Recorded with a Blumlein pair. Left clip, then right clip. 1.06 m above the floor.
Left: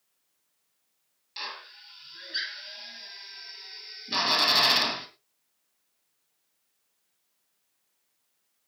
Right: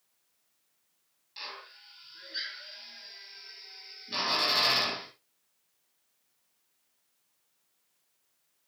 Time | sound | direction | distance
1.4 | a drill | 25° left | 3 m